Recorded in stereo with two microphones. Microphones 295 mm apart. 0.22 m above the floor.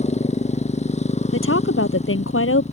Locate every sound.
0.0 s a motorcycle: 25° left (ahead or behind)
1.3 s a woman speaking: 45° left (ahead or behind)